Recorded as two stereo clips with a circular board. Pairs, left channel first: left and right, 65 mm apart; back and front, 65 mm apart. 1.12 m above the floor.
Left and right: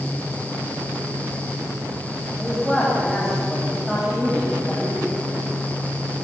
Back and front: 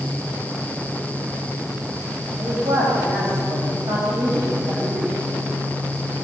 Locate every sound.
2.4 s a man speaking: straight ahead, 6 m